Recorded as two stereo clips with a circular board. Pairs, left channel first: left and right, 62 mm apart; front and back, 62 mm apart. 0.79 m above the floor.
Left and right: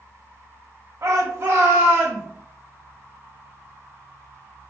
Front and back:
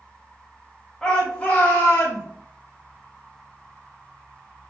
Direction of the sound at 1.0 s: 80° right.